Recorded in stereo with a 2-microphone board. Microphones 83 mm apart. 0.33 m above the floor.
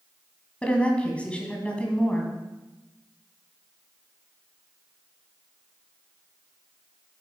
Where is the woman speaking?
15° left (ahead or behind), 1.9 m.